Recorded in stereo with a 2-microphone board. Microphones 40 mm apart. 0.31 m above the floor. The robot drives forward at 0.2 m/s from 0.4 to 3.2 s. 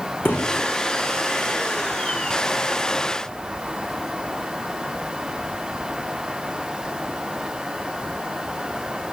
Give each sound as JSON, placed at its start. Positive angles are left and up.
{"t": 0.2, "sound": "a thud", "side_deg": 60, "distance_m": 8.5}